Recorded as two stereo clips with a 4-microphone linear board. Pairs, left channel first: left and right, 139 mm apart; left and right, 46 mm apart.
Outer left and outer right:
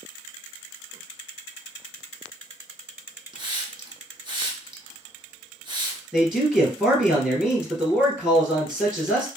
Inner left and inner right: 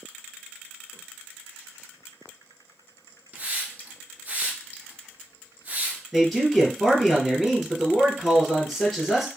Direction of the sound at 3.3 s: 35° right (ahead or behind).